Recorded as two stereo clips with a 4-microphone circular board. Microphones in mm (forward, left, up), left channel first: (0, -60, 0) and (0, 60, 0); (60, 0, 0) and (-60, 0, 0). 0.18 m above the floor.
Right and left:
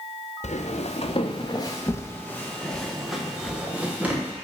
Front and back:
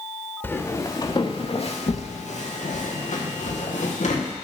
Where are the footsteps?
70° right, 1.5 m; by 4.3 s 15° left, 3 m.